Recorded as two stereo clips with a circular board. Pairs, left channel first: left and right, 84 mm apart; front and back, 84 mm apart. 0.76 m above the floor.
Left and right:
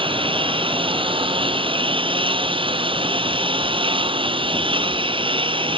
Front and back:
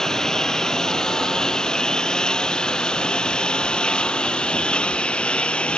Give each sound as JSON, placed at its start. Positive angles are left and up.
{"t": 0.0, "sound": "a lawn mower", "azimuth_deg": -85}